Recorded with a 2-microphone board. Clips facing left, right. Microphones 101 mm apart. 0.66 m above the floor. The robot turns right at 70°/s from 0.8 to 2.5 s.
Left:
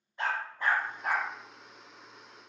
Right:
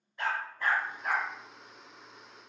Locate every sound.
0.2 s a dog barking: 20° left (ahead or behind), 1.4 m; by 1.3 s 55° left (ahead or behind), 1.4 m